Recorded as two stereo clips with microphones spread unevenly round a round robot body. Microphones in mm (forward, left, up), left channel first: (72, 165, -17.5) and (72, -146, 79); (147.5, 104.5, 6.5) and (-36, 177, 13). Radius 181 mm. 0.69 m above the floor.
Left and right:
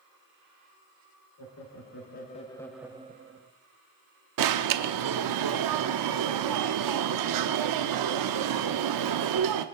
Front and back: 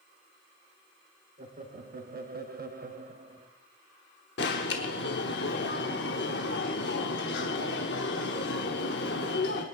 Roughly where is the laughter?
Behind left.